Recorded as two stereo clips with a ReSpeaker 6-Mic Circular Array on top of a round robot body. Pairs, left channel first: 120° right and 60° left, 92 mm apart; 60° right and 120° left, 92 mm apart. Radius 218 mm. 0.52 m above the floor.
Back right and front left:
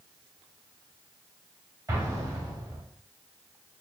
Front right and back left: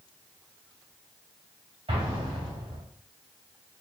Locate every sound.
1.9 s an explosion: 110° left, 2.5 m